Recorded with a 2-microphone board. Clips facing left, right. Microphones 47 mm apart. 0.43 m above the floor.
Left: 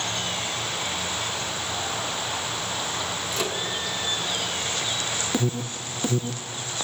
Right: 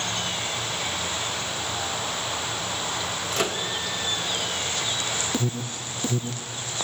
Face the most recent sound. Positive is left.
turn(degrees=15)  # may be behind; listen again after turning